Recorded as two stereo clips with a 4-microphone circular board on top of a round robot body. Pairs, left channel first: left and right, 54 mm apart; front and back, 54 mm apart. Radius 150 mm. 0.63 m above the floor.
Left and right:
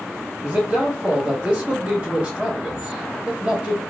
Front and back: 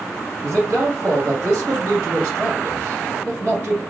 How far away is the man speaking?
About 1.4 m.